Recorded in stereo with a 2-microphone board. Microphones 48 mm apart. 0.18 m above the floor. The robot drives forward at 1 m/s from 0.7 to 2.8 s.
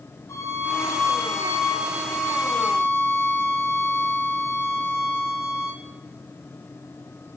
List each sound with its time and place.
0.3 s a violin: 80° left, 4 m; by 5.8 s 65° left (ahead or behind), 4 m